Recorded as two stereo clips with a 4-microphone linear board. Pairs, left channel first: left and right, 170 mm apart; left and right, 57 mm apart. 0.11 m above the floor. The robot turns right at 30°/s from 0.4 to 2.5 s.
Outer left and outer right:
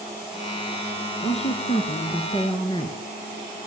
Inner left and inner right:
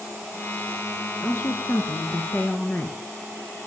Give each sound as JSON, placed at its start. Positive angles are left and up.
{"t": 1.2, "sound": "a woman speaking", "azimuth_deg": 85, "distance_m": 1.3}